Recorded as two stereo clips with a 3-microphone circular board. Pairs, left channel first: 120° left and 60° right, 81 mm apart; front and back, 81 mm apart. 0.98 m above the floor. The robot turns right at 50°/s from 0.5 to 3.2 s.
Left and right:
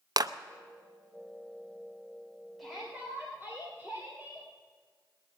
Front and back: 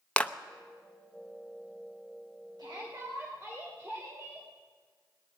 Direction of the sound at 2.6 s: 150° right.